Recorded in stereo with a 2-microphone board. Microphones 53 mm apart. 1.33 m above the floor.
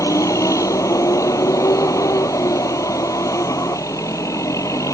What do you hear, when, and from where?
0.0 s a vehicle: 90° left